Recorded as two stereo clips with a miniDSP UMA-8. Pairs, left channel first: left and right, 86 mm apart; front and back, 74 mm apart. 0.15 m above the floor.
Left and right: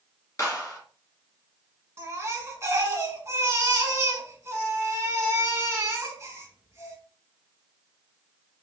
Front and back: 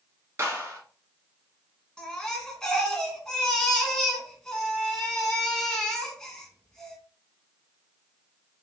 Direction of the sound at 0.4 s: 135° left.